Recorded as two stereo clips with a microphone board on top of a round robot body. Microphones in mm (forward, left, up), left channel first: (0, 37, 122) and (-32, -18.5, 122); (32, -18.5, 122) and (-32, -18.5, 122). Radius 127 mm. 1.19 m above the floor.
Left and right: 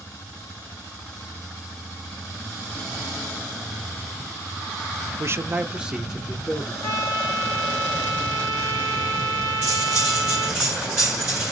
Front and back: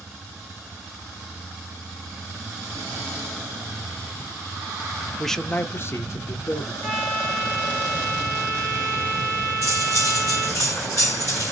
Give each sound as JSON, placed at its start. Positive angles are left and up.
{"t": 5.2, "sound": "a man speaking", "azimuth_deg": -95, "distance_m": 0.6}
{"t": 6.8, "sound": "a trumpet", "azimuth_deg": 70, "distance_m": 1.5}
{"t": 9.6, "sound": "cutlery clinking", "azimuth_deg": -40, "distance_m": 1.6}